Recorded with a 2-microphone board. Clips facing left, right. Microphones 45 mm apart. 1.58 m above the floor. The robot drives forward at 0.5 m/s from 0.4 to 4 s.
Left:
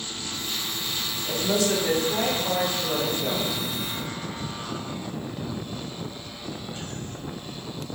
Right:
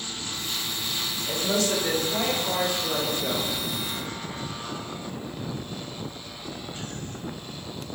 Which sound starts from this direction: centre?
A woman speaking, at 1.2 s.